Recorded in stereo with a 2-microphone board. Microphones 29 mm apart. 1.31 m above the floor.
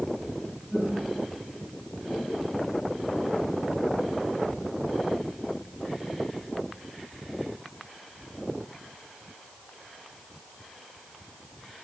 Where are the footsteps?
55° right (ahead or behind), 2.5 m; by 3.6 s 25° left (ahead or behind), 1.6 m.